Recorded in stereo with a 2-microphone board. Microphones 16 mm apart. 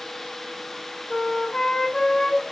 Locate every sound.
1.1 s a flute: 75° left (ahead or behind), 6 m